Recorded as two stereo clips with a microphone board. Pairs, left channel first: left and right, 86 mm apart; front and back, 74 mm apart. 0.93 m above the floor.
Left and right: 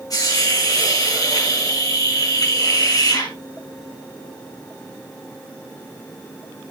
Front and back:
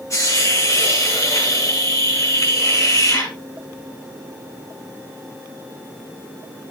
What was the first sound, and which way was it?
A hiss, 45° left.